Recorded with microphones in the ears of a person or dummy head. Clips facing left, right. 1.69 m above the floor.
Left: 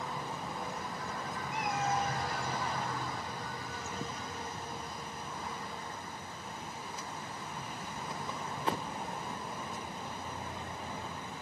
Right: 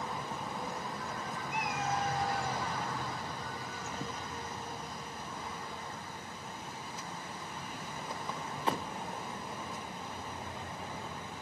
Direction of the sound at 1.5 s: 70° right (ahead or behind).